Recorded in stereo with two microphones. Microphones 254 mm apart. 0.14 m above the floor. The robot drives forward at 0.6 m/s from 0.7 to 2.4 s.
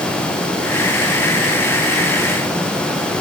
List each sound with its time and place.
Only background noise.